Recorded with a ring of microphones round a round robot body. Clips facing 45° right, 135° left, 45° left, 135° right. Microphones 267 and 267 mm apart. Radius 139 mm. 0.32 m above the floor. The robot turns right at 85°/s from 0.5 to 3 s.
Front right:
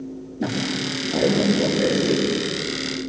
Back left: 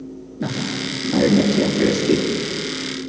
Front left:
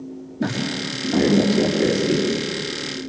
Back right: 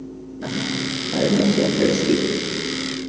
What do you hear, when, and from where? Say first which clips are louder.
0.4 s a woman speaking: even, front left 1 dB; 60° left, 7 m; by 2.2 s 150° right, 7 m